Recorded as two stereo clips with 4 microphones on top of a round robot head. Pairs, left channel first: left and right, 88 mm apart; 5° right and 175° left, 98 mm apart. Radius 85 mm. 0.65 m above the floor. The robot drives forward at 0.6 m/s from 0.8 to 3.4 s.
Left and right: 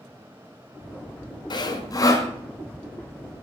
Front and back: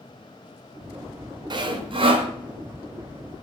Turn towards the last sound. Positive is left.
turn(degrees=155)